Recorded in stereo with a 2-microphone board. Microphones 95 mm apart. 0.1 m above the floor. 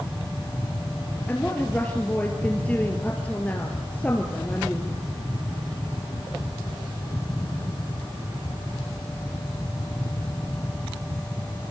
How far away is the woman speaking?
About 2.5 m.